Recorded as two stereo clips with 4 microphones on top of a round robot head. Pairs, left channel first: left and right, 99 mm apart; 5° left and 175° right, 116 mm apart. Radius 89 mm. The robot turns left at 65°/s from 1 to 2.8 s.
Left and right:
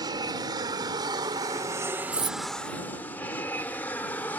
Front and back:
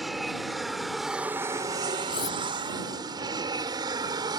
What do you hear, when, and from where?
0.0 s an aircraft: 85° right; by 4.4 s 155° left
2.1 s cutlery clinking: 40° right; by 2.4 s 60° right